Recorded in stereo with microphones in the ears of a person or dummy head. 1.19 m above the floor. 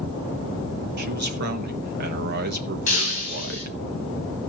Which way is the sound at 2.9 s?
40° left (ahead or behind).